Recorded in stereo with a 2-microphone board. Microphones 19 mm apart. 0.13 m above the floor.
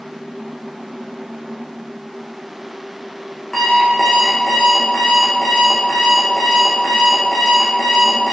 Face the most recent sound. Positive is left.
turn(degrees=20)  # may be behind; listen again after turning